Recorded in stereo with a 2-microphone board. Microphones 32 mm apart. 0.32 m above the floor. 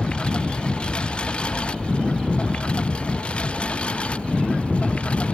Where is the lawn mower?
30° left (ahead or behind); by 5.3 s 40° left (ahead or behind).